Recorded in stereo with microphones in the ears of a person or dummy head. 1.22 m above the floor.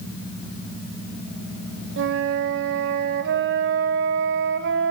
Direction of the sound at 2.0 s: 60° right (ahead or behind).